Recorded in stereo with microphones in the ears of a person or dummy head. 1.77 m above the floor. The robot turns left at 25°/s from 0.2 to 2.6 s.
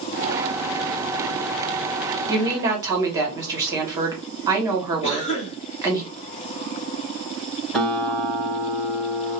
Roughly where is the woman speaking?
Right.